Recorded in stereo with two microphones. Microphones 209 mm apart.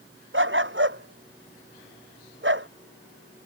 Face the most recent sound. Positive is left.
turn(degrees=-60)  # may be behind; listen again after turning